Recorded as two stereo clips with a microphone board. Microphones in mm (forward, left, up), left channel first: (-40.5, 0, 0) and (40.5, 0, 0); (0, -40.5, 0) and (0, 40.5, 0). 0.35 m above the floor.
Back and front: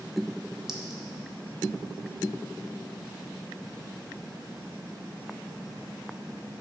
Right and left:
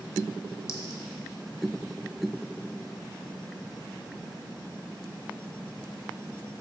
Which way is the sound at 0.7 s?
80° right.